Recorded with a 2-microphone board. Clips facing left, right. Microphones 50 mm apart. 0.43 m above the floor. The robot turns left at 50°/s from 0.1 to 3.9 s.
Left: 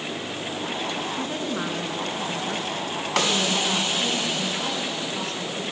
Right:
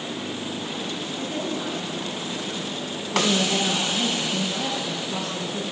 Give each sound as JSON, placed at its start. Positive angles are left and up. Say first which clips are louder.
{"t": 1.1, "sound": "a woman speaking", "louder": "left 1 dB", "azimuth_deg": 155, "distance_m": 6.0}
{"t": 3.1, "sound": "a woman speaking", "louder": "right 2 dB", "azimuth_deg": -65, "distance_m": 9.0}